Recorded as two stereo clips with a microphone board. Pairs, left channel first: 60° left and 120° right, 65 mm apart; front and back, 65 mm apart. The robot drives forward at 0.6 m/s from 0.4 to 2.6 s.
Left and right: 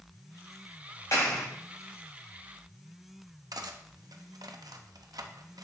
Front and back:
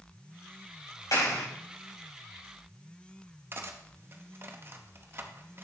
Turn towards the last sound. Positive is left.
turn(degrees=-130)